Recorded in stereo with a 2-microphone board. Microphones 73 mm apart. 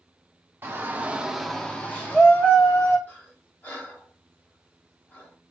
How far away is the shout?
About 0.8 m.